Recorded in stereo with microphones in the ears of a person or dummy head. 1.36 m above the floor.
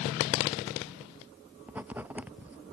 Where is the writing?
10° right (ahead or behind).